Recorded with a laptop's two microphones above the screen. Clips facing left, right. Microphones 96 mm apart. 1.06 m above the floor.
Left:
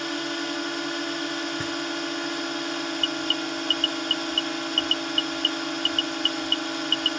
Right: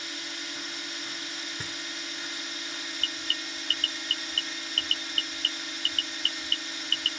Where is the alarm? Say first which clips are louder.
Left 11 dB; 40° left (ahead or behind).